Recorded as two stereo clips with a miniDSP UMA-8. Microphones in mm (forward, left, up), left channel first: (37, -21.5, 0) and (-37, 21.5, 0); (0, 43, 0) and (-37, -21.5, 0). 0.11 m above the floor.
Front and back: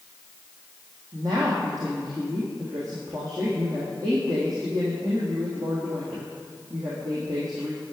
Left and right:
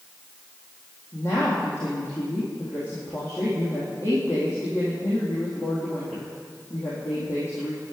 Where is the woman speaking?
110° left, 3.5 m.